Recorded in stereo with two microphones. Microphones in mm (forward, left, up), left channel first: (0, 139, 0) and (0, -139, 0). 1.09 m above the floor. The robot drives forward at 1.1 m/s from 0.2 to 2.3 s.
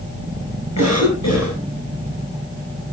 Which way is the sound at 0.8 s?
80° left.